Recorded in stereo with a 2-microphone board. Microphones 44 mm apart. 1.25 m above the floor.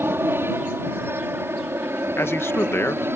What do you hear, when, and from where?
0.0 s an aircraft: 65° right (ahead or behind)
2.2 s a man speaking: 70° left (ahead or behind)